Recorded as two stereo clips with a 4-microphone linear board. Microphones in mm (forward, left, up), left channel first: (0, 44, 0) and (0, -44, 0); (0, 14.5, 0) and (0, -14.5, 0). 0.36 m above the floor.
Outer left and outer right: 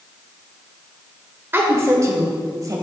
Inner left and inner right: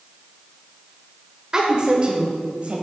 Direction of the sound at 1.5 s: 25° right (ahead or behind).